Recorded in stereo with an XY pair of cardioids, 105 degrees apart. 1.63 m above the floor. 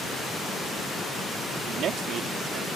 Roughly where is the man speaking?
Right.